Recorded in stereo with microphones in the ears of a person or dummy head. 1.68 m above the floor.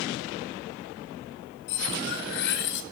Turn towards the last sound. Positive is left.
turn(degrees=55)  # may be behind; listen again after turning